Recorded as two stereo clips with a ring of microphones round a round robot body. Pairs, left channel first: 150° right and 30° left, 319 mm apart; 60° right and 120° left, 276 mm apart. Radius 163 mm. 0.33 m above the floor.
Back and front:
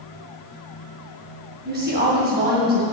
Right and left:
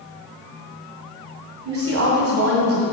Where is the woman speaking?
90° left, 2 m.